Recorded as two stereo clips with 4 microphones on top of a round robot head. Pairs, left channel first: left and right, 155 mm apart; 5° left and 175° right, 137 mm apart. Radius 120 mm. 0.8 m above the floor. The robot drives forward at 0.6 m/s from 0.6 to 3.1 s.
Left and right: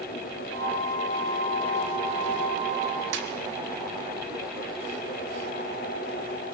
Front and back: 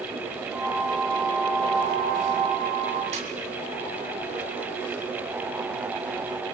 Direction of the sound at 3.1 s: 120° right.